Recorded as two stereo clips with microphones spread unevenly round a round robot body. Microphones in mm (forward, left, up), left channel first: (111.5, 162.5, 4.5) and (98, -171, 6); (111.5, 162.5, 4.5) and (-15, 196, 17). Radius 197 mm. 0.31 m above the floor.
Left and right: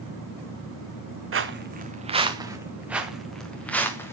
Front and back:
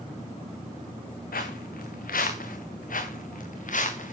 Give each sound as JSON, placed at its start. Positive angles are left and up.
{"t": 1.3, "sound": "footsteps", "azimuth_deg": -40, "distance_m": 1.6}